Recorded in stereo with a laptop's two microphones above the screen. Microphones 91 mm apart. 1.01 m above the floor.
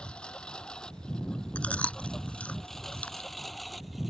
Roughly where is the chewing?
Centre.